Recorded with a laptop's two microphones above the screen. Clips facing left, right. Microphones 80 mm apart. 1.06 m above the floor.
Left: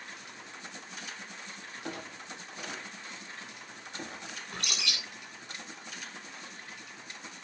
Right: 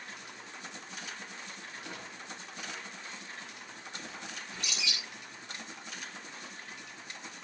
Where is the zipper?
No zipper in this recording.